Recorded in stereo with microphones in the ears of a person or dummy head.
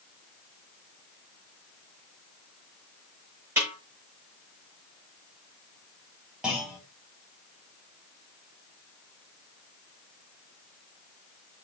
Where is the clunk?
5° right (ahead or behind), 5 m.